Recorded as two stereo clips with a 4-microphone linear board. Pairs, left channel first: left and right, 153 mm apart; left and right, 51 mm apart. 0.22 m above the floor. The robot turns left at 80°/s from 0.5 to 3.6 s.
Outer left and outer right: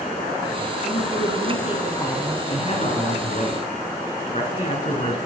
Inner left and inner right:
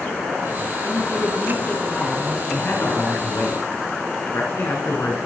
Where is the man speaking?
145° left, 3 m; by 5.2 s 55° left, 3 m.